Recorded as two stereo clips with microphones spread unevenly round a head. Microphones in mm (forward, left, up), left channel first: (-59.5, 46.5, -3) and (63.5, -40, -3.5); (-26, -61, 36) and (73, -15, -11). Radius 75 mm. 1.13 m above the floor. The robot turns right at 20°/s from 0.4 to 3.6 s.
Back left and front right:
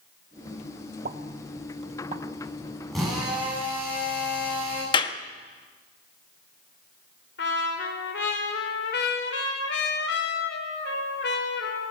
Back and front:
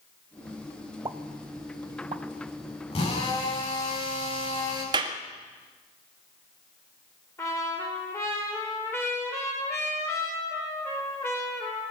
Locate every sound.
1.1 s a pop: 10° right, 1.2 m; by 2.2 s 15° left, 1.2 m
2.9 s a drill: 125° right, 10 m; by 4.8 s 115° right, 10 m
4.9 s a clap: 85° left, 1.4 m
7.4 s a trumpet: 130° left, 3 m